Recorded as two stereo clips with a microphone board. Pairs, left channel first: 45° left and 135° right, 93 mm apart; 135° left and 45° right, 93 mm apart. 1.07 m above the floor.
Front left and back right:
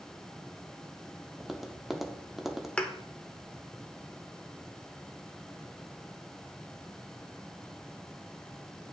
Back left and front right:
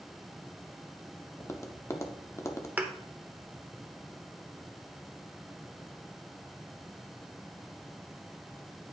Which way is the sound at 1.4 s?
140° left.